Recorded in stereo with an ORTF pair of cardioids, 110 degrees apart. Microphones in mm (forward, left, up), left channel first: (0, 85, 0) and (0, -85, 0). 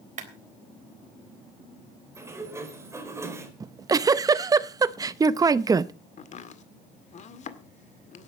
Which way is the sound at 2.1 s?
15° right.